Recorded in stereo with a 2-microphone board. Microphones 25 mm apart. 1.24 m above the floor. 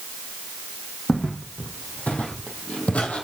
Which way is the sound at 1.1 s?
70° left (ahead or behind).